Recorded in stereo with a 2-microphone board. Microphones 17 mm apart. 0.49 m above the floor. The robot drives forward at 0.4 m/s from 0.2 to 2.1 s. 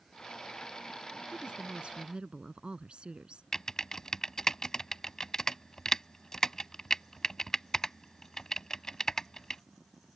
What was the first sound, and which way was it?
A woman speaking, 80° right.